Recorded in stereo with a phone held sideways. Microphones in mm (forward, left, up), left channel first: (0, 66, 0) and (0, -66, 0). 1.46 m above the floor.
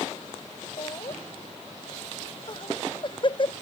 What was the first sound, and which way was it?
Laughter, 40° left (ahead or behind).